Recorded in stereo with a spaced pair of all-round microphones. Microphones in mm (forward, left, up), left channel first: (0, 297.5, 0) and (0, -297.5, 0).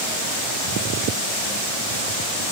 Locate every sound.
Only background noise.